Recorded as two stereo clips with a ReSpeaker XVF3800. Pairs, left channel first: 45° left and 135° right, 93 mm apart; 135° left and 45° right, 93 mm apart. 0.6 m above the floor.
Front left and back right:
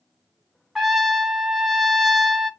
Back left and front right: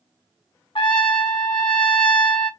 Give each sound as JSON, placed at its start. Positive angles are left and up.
{"t": 0.8, "sound": "a trumpet", "azimuth_deg": 140, "distance_m": 0.8}